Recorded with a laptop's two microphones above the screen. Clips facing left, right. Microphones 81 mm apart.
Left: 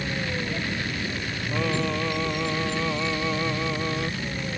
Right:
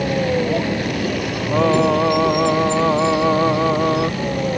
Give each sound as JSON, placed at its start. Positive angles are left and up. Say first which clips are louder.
{"t": 0.0, "sound": "a vehicle", "louder": "right 11 dB", "side_deg": -90}
{"t": 1.5, "sound": "singing", "louder": "right 12 dB", "side_deg": -65}